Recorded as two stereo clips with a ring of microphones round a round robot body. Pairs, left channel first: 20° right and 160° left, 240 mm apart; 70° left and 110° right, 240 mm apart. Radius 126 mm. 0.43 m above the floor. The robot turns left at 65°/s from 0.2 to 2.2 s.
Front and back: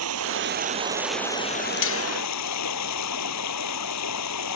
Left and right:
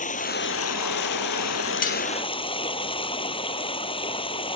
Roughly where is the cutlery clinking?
Ahead.